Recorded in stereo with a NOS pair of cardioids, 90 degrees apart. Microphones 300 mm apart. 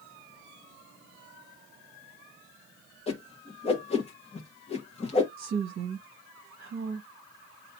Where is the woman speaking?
45° right, 1.1 m.